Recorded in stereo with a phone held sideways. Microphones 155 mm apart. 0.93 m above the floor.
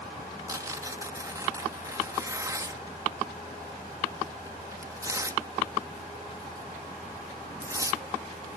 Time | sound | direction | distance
0.5 | tearing paper | 20° right (ahead or behind) | ?